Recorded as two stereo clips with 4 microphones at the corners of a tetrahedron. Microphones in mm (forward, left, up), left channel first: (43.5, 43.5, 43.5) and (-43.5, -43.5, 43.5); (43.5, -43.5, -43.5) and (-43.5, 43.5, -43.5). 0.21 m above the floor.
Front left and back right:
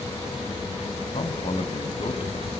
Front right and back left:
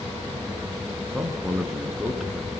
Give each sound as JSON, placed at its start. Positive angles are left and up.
{"t": 1.1, "sound": "a man speaking", "azimuth_deg": 50, "distance_m": 2.5}